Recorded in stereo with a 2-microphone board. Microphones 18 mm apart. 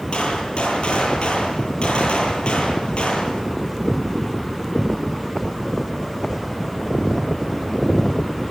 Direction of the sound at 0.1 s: 80° left.